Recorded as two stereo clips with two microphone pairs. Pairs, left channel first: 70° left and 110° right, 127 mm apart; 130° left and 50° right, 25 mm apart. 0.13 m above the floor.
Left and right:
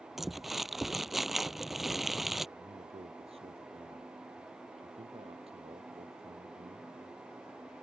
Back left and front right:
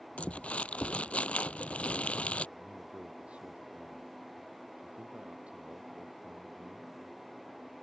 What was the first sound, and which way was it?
Crumpling, 165° left.